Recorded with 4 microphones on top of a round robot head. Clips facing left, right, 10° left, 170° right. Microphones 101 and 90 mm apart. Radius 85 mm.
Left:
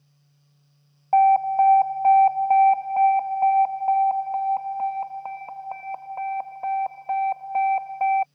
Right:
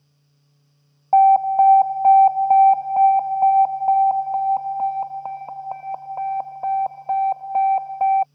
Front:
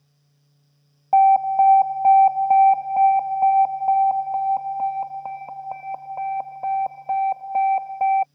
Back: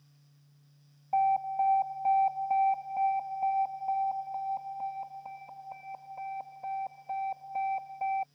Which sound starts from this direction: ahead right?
An alarm, at 1.1 s.